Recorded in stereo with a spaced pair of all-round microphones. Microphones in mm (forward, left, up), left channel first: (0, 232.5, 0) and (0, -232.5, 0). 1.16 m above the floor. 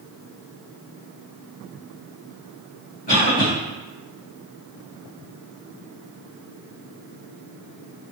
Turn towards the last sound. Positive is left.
turn(degrees=60)  # may be behind; listen again after turning